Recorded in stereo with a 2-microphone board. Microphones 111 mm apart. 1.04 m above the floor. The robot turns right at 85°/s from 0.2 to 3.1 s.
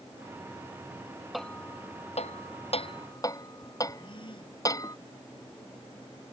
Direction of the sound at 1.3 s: Centre (ahead or behind).